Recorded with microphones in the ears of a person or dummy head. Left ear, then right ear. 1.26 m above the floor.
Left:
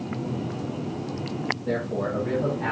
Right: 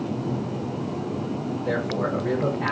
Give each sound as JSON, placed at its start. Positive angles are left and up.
{"t": 1.6, "sound": "a man speaking", "side_deg": -50, "distance_m": 1.4}